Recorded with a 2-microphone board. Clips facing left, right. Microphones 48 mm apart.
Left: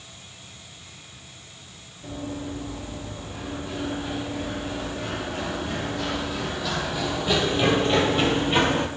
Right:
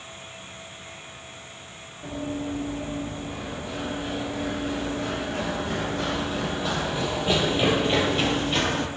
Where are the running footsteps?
55° right (ahead or behind), 5 m; by 8.9 s 25° left (ahead or behind), 1.2 m.